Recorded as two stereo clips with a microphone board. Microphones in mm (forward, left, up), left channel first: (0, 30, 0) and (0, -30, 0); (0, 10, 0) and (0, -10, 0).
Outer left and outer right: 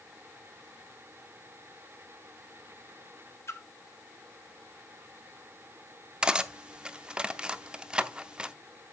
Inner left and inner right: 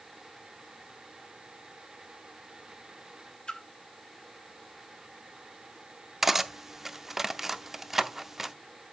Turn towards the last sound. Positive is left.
turn(degrees=-15)  # may be behind; listen again after turning